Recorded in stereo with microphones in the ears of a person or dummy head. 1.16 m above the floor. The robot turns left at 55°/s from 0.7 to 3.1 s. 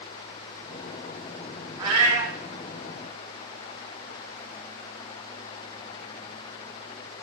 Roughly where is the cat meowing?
Ahead right.